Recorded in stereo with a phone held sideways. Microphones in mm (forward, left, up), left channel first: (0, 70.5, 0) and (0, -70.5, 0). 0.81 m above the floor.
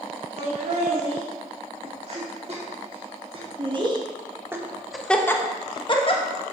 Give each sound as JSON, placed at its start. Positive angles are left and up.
{"t": 0.4, "sound": "laughter", "side_deg": -55, "distance_m": 3.5}